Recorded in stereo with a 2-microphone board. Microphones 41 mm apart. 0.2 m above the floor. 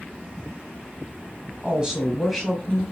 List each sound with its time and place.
1.6 s a woman speaking: 25° right (ahead or behind), 1.6 m; by 2.8 s 10° left (ahead or behind), 1.6 m